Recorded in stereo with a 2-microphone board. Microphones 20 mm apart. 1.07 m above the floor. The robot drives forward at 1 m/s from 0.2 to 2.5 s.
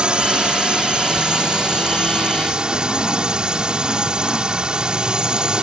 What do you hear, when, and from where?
0.0 s a drone: 50° right (ahead or behind); by 5.6 s 40° right (ahead or behind)